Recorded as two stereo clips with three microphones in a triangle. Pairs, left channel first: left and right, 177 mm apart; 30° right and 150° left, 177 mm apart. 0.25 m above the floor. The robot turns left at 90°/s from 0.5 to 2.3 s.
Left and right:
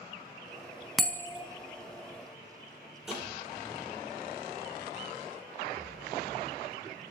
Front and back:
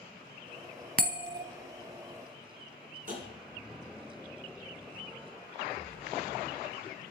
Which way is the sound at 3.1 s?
175° right.